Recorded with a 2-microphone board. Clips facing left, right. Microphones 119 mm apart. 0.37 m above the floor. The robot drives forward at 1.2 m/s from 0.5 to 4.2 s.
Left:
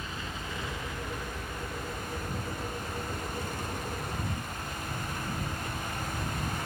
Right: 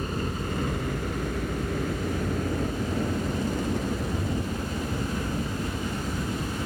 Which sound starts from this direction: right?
A helicopter, at 0.0 s.